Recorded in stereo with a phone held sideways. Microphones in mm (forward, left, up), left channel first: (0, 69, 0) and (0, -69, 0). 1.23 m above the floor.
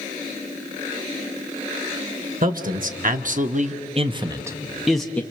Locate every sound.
2.4 s a man speaking: 70° right (ahead or behind), 1.7 m; by 5.2 s 10° left (ahead or behind), 1.2 m